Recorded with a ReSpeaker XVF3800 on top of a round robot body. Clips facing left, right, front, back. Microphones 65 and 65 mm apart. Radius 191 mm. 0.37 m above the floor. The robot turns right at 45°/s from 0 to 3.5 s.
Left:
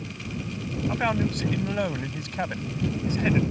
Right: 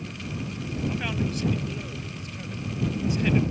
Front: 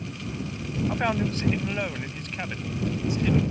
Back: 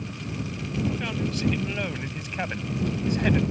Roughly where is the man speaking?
Ahead left.